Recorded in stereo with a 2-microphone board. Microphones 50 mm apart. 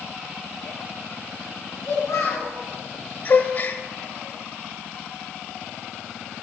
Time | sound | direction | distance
1.9 | a child speaking | 85° left | 3 m
3.2 | a gasp | 45° left (ahead or behind) | 0.7 m